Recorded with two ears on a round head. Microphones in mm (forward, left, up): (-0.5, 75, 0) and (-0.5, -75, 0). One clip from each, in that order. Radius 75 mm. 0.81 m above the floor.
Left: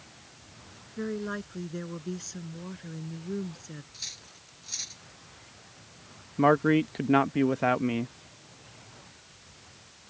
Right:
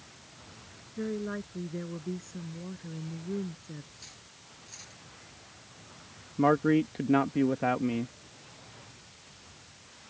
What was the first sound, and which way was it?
A woman speaking, 85° left.